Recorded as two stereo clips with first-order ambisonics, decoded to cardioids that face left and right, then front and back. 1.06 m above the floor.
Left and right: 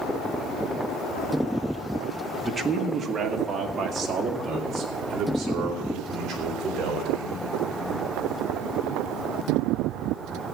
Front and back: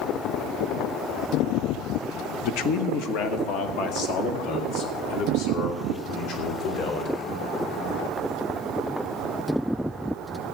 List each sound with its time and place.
2.4 s a man speaking: 5° right, 0.8 m; by 7.2 s 30° right, 4 m